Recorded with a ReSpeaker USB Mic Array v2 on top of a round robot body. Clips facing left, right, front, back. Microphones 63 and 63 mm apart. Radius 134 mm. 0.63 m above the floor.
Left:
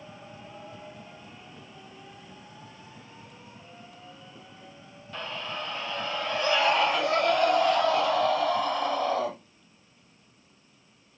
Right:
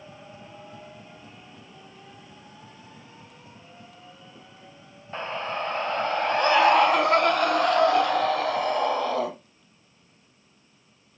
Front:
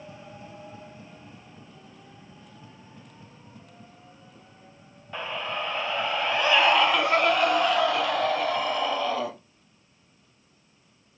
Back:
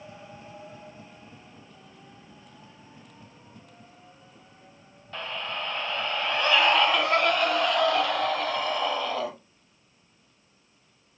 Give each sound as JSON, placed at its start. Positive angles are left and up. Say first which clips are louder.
{"t": 5.1, "sound": "a scream", "louder": "right 5 dB, front 2 dB", "azimuth_deg": -70, "distance_m": 1.1}